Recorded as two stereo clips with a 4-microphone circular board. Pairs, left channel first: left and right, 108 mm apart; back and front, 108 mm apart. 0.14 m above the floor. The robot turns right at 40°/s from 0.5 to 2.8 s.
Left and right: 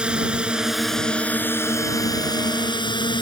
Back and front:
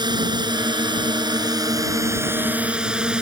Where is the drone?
15° right; by 3.2 s 80° left.